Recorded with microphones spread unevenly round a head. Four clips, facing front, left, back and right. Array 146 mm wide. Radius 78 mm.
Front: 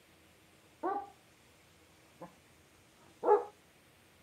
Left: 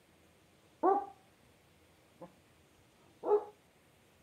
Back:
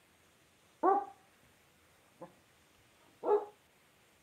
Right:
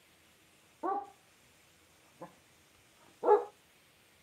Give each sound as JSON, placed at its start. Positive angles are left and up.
{"t": 0.8, "sound": "a dog barking", "azimuth_deg": 105, "distance_m": 0.6}